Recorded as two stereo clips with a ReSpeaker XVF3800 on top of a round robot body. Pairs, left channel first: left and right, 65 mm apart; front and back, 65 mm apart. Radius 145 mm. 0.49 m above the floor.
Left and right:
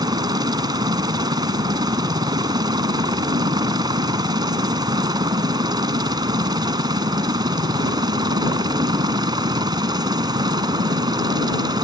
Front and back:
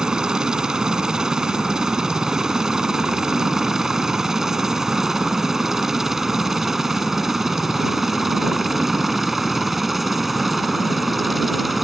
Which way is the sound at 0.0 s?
105° right.